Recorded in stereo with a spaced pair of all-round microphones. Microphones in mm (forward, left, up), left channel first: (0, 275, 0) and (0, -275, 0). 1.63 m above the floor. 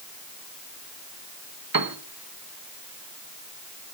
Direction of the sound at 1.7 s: 40° right (ahead or behind).